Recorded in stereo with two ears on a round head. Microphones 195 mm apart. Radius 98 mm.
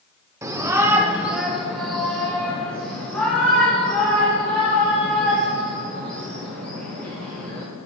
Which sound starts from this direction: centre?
A shout, at 0.4 s.